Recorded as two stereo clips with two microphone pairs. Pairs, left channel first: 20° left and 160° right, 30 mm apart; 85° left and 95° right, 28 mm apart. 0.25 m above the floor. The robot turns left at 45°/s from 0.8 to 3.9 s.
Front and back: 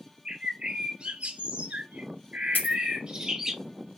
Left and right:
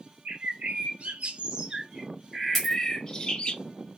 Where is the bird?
105° right, 0.6 m; by 3.5 s 130° left, 0.6 m.